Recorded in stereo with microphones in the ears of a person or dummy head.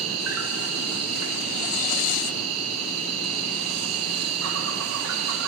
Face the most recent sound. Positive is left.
turn(degrees=-80)